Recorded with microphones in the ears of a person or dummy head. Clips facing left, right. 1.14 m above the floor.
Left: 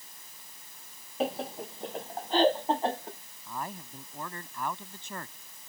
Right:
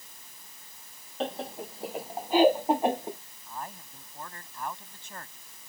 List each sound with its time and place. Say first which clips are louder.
1.2 s laughter: left 2 dB; 10° left (ahead or behind); by 3.2 s 15° right (ahead or behind)
3.5 s a man speaking: left 2 dB; 75° left (ahead or behind)